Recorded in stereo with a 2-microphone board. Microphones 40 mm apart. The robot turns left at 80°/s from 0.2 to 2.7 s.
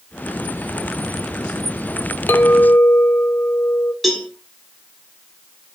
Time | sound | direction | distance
2.3 | a clink | 105° left | 0.6 m
4.0 | a cowbell | centre (ahead or behind) | 1.5 m